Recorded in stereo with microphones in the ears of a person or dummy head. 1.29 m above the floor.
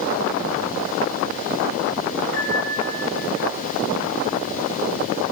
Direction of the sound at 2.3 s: 65° left (ahead or behind).